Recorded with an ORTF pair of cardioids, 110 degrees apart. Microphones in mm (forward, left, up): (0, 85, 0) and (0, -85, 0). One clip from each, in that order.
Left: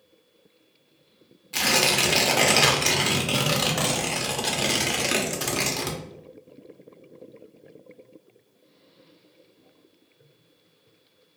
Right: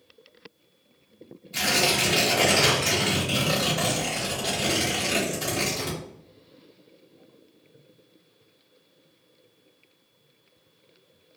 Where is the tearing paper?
55° left, 0.9 m.